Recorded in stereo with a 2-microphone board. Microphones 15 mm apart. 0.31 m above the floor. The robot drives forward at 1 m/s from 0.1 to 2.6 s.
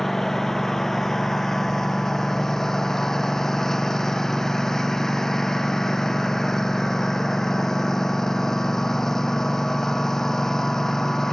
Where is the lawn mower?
20° left (ahead or behind); by 11.3 s 25° left (ahead or behind).